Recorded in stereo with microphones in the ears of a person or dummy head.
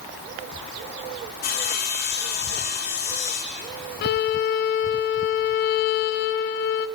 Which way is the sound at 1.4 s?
45° left (ahead or behind).